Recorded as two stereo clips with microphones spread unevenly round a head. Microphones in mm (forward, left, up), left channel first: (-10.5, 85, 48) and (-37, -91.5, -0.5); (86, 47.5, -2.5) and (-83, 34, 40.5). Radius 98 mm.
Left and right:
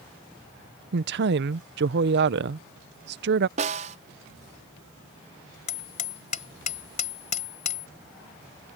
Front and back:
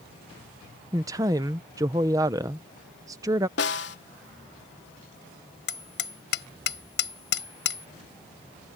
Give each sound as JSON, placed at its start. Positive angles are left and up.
{"t": 0.9, "sound": "a woman speaking", "azimuth_deg": -125}
{"t": 3.6, "sound": "a snare drum", "azimuth_deg": -35}
{"t": 5.7, "sound": "hammering", "azimuth_deg": 30}